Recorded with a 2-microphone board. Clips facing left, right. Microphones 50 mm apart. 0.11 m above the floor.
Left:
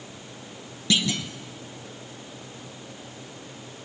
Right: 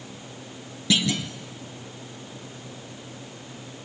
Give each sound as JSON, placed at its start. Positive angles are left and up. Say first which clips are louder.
{"t": 0.9, "sound": "a clunk", "louder": "right 1 dB", "side_deg": -5, "distance_m": 1.4}